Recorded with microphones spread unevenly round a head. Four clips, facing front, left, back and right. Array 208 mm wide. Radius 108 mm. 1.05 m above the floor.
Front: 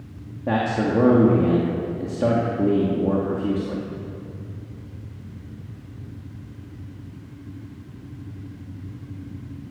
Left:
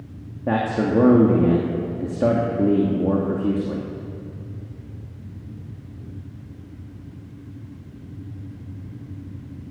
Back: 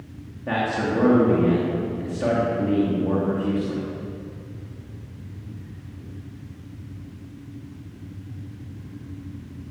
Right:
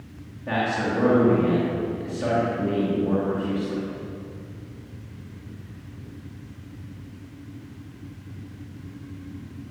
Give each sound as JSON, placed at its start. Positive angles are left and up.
{"t": 0.5, "sound": "a man speaking", "azimuth_deg": 65, "distance_m": 2.5}